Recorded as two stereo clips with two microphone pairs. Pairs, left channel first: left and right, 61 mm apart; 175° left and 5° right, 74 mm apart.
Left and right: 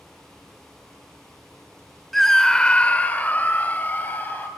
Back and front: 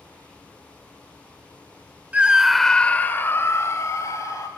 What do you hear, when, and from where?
2.1 s a scream: 5° left, 0.8 m; by 4.5 s 145° left, 1.8 m